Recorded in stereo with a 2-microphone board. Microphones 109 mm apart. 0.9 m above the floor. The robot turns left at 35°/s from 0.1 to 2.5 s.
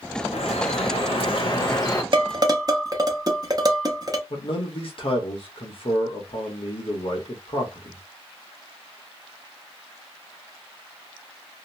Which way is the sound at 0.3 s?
90° left.